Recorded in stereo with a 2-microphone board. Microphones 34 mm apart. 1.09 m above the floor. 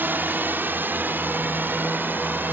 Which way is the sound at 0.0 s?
70° right (ahead or behind).